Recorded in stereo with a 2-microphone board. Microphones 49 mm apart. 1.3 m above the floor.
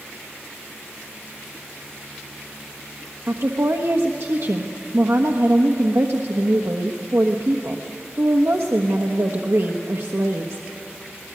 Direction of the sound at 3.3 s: 60° right (ahead or behind).